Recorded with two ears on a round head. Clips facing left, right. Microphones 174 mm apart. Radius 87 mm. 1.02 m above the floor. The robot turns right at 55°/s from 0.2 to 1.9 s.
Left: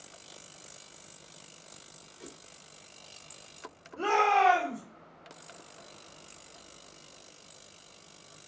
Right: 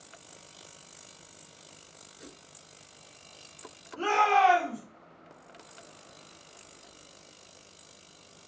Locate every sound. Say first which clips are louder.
2.2 s a whoosh: left 1 dB; 25° right (ahead or behind), 0.6 m
4.0 s a shout: right 1 dB; 50° right (ahead or behind), 2.5 m